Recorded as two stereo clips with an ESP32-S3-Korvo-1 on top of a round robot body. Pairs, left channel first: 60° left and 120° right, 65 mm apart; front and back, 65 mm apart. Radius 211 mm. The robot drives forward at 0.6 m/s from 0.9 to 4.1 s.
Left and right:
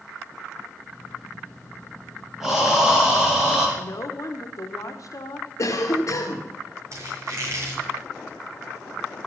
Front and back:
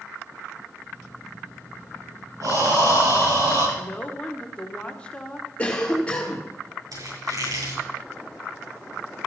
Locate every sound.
2.4 s breathing: 155° left, 6 m
3.8 s a woman speaking: 65° left, 1.6 m; by 5.5 s 70° left, 1.5 m
5.6 s a cough: 70° left, 2 m
6.9 s a squeak: 165° right, 6 m